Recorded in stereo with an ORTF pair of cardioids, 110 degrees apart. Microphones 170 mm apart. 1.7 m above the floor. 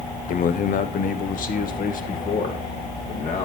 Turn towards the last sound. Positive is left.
turn(degrees=55)